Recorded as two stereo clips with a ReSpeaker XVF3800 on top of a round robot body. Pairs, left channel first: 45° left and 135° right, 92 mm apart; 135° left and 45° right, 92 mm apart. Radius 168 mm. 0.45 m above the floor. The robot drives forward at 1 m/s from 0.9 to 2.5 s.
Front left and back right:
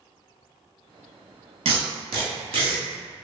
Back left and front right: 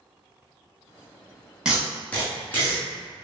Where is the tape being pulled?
125° right, 0.7 m; by 2.8 s 155° right, 1.4 m.